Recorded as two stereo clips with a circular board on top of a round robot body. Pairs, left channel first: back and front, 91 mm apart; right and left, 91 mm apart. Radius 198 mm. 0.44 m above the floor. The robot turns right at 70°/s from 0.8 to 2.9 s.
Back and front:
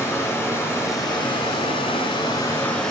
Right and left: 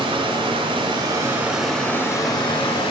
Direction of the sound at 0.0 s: 120° left.